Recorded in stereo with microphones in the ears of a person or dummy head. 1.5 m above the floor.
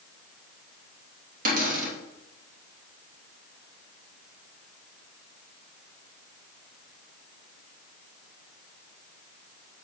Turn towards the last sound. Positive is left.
turn(degrees=-55)  # may be behind; listen again after turning